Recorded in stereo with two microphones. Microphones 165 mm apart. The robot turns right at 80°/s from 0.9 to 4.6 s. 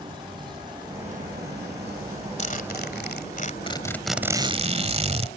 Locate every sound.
0.0 s an insect: 155° right; by 5.4 s 140° left
2.4 s a zipper: 45° left; by 5.3 s 140° right